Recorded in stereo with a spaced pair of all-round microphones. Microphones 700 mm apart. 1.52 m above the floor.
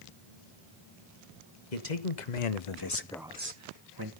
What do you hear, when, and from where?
1.7 s a man speaking: 85° left, 1.5 m; by 4.1 s 35° right (ahead or behind), 1.6 m